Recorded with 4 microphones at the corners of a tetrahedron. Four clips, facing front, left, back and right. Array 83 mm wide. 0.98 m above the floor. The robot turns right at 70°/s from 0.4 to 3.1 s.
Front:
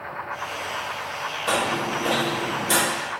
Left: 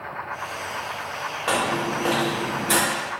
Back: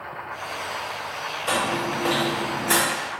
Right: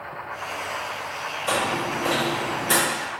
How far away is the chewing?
About 1.2 m.